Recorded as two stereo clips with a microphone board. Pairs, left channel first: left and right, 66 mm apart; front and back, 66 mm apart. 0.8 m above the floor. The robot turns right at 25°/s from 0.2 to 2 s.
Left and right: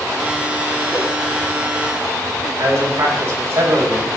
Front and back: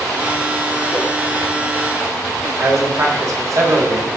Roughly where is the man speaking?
Behind right.